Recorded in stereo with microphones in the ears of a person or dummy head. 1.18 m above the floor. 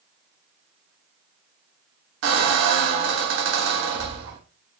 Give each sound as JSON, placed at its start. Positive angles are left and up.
{"t": 2.2, "sound": "a squeak", "side_deg": -60, "distance_m": 0.8}